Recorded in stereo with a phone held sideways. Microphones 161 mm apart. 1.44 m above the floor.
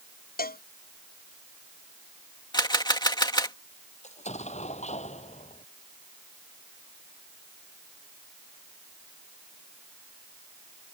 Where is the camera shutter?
25° left (ahead or behind).